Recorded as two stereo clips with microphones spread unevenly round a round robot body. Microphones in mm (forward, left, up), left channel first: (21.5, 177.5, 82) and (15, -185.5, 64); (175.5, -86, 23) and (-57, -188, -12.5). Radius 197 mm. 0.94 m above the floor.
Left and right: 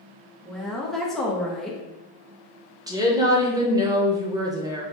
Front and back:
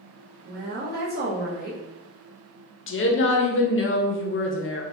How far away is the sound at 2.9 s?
About 0.7 m.